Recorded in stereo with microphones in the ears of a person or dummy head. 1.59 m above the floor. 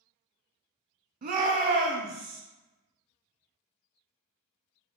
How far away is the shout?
About 0.9 m.